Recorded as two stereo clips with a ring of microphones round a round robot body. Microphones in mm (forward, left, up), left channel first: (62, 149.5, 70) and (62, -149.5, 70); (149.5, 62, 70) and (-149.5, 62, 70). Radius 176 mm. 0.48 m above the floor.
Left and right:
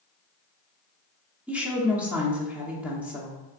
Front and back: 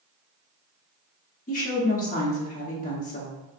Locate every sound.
1.5 s a woman speaking: 10° right, 0.7 m